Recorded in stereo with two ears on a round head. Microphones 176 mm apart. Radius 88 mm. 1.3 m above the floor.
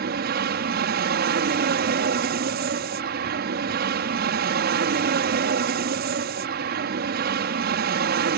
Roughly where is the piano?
I don't hear a piano.